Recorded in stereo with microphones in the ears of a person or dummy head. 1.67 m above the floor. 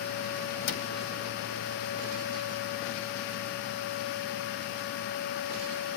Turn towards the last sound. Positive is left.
turn(degrees=60)  # may be behind; listen again after turning